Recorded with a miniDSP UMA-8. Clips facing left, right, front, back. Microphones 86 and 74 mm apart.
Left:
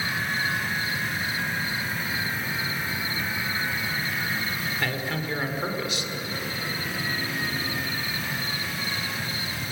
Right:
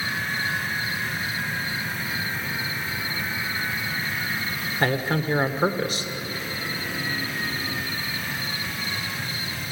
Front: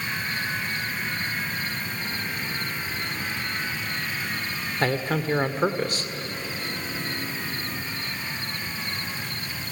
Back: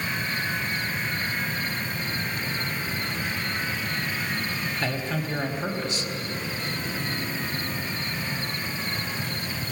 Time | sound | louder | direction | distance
4.8 | a man speaking | right 9 dB, front 8 dB | 40° right | 1.9 m